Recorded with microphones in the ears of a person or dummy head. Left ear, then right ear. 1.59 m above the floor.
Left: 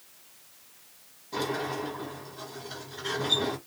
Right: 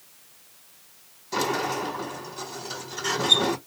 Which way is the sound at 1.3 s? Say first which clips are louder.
Right 5 dB; 75° right (ahead or behind).